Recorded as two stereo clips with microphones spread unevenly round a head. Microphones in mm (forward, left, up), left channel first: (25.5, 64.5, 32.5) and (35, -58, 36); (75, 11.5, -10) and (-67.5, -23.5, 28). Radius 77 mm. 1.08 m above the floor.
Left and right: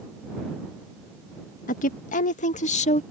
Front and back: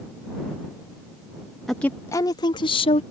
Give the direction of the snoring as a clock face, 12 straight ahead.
I don't hear snoring.